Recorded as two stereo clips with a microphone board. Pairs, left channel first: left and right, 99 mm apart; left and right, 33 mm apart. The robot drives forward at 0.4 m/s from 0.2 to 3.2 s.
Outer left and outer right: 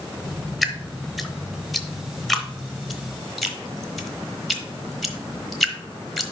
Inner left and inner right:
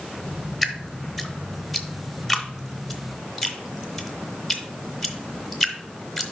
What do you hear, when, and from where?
0.6 s dripping: centre (ahead or behind), 0.9 m